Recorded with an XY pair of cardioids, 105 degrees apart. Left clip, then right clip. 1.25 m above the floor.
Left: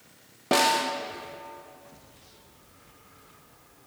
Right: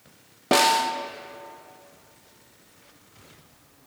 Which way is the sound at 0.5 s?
25° right.